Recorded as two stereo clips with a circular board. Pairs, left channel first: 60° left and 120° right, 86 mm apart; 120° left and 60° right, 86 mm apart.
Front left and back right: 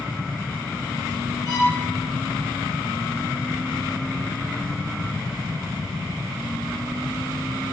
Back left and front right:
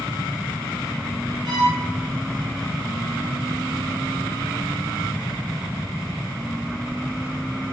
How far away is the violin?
About 1.2 m.